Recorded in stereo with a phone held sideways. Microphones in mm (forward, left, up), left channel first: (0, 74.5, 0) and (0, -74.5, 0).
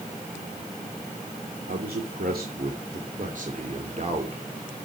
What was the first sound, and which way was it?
A man speaking, 90° right.